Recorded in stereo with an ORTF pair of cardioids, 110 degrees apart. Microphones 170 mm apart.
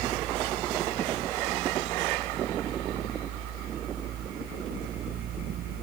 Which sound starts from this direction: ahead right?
A fan, at 0.0 s.